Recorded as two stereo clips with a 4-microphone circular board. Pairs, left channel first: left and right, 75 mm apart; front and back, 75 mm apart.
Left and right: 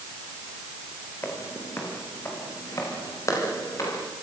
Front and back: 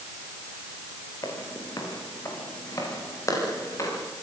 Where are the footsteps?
35° left, 7.5 m; by 4.0 s 45° left, 11 m.